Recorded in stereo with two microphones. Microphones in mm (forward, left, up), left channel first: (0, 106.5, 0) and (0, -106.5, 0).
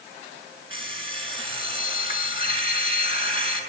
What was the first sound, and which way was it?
An alarm clock, 25° right (ahead or behind).